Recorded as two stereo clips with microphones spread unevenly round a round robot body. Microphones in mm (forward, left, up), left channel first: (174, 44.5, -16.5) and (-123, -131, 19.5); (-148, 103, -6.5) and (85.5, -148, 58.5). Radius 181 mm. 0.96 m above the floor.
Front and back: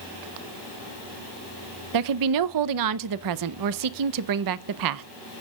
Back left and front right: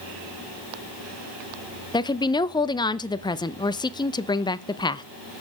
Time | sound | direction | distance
1.9 | a woman speaking | 160° right | 0.7 m